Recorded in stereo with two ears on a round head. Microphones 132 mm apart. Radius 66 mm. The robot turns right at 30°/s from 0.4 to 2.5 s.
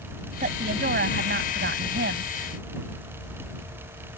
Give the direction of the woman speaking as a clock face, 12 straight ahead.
4 o'clock.